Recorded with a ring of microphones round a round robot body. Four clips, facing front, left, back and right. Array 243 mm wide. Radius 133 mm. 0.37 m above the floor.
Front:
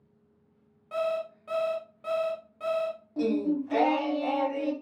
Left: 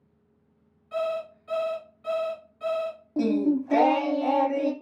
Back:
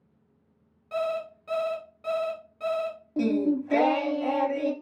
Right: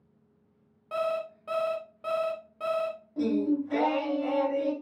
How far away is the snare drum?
No snare drum in this recording.